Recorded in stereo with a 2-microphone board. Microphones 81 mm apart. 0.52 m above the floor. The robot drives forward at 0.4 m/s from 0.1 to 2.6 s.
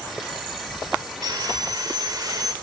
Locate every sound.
1.2 s sawing: 60° right (ahead or behind), 2 m; by 2.5 s 55° right (ahead or behind), 2 m